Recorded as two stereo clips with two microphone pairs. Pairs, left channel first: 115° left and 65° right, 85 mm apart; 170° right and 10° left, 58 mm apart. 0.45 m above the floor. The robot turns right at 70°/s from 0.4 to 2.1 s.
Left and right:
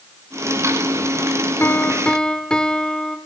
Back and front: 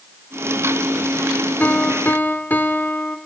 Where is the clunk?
No clunk in this recording.